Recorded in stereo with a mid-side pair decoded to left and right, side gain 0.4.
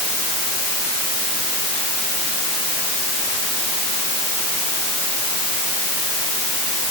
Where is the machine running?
No machine running in this recording.